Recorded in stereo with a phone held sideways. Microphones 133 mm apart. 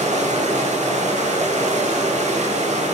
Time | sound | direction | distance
0.0 | running water | 60° right (ahead or behind) | 0.9 m